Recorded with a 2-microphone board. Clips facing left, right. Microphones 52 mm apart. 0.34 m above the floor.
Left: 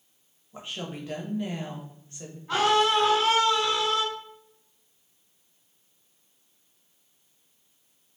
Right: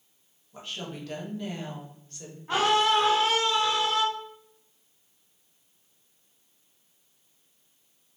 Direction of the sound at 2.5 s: 30° right (ahead or behind).